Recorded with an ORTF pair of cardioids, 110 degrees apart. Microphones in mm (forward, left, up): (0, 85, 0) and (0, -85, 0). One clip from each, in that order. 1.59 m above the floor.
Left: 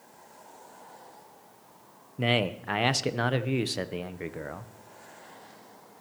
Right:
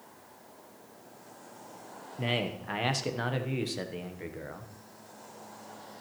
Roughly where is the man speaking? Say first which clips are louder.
Left 5 dB; ahead left.